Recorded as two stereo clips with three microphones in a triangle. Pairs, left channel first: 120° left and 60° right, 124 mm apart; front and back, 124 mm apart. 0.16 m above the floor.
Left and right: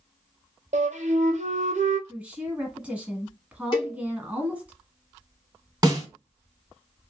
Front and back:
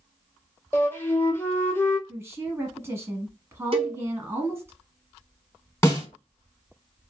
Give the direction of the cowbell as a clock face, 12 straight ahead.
7 o'clock.